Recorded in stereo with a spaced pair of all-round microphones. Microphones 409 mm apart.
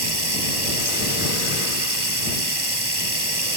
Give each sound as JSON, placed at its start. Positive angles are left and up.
{"t": 0.0, "sound": "running water", "side_deg": -75}